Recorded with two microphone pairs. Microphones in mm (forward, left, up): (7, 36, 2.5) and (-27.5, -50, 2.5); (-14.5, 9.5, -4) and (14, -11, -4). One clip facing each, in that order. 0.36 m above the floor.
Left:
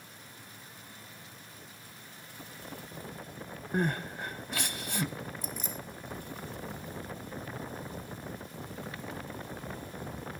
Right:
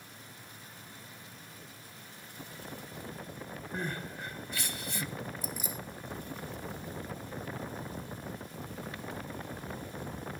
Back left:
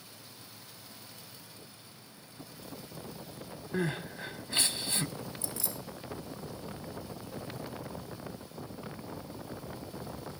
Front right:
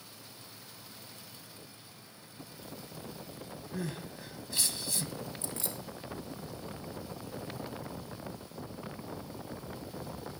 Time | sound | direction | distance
3.7 | crying | 100° left | 0.6 m
5.4 | keys jangling | 30° right | 1.4 m